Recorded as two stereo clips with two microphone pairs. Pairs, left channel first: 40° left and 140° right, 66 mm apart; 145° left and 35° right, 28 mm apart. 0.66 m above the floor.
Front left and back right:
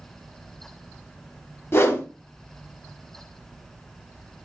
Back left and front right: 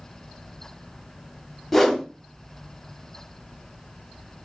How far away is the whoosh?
About 0.5 m.